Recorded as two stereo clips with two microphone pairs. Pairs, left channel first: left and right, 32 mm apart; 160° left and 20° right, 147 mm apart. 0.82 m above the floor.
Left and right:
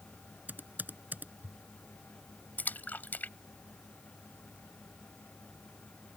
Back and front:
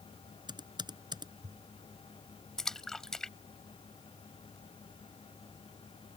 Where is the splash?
75° left.